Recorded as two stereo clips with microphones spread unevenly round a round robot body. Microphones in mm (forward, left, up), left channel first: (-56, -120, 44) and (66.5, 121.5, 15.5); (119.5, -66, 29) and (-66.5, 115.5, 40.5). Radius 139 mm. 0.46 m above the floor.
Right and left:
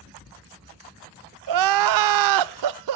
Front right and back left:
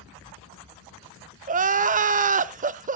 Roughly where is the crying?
Left.